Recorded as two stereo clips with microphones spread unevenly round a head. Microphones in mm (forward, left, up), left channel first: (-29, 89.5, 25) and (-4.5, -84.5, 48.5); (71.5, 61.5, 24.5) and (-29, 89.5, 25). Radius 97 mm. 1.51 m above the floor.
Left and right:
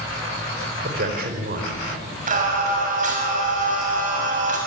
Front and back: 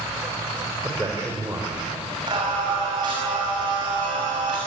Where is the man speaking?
120° right, 5 m.